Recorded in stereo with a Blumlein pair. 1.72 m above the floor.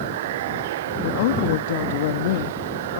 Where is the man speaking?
55° left.